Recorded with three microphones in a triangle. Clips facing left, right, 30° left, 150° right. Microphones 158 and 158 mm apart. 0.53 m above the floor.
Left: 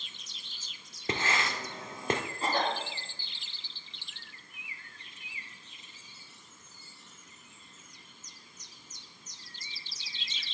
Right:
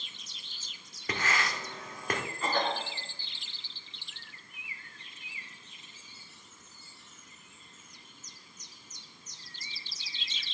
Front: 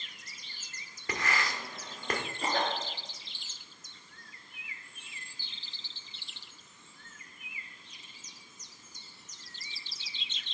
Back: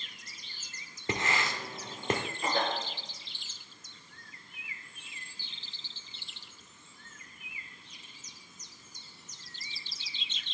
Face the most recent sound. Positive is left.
turn(degrees=35)